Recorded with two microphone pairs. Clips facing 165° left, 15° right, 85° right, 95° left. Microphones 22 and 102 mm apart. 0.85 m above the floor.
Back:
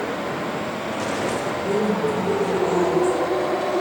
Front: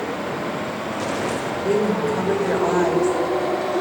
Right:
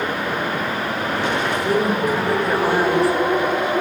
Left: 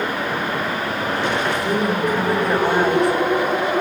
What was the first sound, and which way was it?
A woman speaking, straight ahead.